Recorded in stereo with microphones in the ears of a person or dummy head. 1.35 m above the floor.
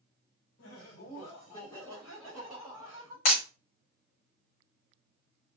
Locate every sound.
0.6 s laughter: 70° left (ahead or behind), 1.0 m; by 3.1 s 20° right (ahead or behind), 1.6 m
3.2 s breaking glass: 50° left (ahead or behind), 1.2 m